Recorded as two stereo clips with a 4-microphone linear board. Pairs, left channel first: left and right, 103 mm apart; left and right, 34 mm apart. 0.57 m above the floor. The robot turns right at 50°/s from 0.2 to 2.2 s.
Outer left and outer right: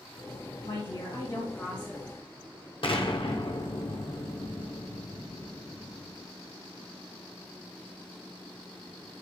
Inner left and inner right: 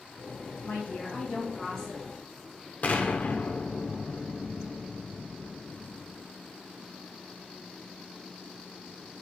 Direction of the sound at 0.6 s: 115° left.